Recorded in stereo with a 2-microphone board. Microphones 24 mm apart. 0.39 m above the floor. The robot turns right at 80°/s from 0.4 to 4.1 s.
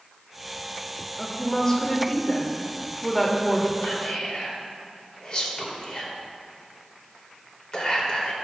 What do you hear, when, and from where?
1.2 s a woman speaking: 5° left (ahead or behind), 1.3 m; by 3.7 s 10° right (ahead or behind), 1.3 m
3.8 s whispering: 25° left (ahead or behind), 1.7 m; by 8.3 s 35° left (ahead or behind), 1.7 m